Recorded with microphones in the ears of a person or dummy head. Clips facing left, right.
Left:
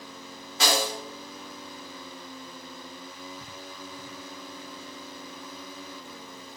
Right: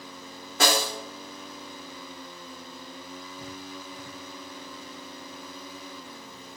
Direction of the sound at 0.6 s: 45° right (ahead or behind).